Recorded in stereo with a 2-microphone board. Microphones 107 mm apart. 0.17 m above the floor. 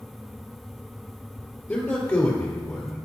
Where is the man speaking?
25° left (ahead or behind), 3 m.